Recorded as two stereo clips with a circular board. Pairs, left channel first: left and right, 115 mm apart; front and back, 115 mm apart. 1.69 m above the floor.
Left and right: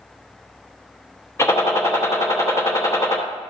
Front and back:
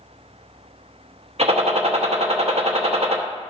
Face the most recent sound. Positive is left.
turn(degrees=155)